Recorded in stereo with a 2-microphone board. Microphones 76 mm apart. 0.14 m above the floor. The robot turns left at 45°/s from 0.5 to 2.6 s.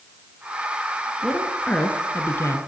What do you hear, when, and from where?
1.2 s a woman speaking: 175° right, 1.7 m; by 2.6 s 120° left, 1.7 m